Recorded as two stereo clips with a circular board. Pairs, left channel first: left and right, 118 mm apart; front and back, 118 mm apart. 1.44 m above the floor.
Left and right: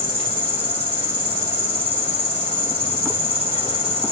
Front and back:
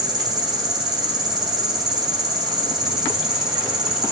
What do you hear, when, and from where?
0.0 s an insect: 130° left, 2.5 m